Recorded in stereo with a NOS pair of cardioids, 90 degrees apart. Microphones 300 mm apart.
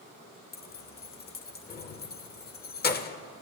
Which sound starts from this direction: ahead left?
Keys jangling, at 0.5 s.